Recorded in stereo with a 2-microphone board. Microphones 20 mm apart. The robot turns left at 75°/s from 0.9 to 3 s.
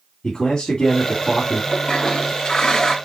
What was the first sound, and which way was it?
A man speaking, 90° left.